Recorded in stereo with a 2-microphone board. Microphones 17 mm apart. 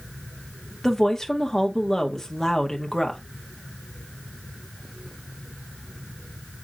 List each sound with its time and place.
0.8 s a woman speaking: 15° left (ahead or behind), 1.2 m